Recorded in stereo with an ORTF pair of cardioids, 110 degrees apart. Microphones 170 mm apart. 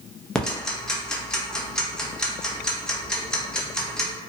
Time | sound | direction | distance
0.3 | ticking | 5° left | 0.6 m